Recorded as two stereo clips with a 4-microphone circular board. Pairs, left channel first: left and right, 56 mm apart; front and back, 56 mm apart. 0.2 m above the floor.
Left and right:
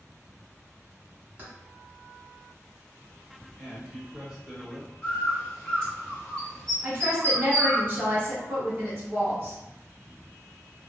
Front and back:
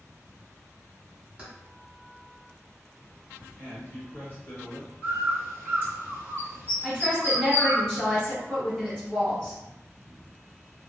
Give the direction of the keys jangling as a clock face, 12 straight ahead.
4 o'clock.